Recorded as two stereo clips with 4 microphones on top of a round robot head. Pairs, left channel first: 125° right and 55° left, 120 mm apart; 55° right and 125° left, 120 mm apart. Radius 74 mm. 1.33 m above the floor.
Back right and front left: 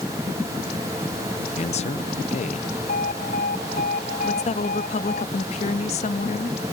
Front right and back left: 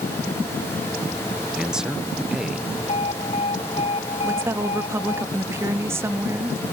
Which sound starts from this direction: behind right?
A man speaking, at 1.6 s.